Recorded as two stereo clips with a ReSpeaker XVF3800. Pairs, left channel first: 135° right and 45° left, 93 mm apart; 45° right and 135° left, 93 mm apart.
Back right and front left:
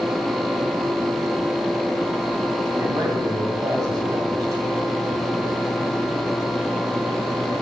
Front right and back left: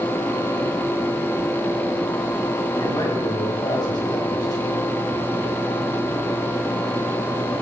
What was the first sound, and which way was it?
A man speaking, 5° right.